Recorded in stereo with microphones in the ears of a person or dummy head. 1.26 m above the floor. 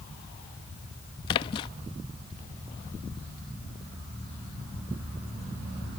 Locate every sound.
1.3 s a splash: 25° left (ahead or behind)